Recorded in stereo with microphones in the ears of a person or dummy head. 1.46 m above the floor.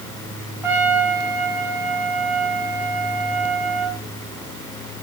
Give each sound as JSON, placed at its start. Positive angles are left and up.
{"t": 0.6, "sound": "a trumpet", "side_deg": -15, "distance_m": 4.0}